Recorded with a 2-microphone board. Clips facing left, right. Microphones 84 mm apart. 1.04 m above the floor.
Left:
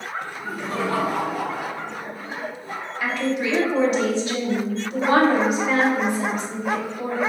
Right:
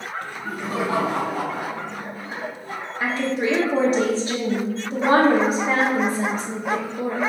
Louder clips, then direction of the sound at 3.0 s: Right 1 dB; 35° right (ahead or behind).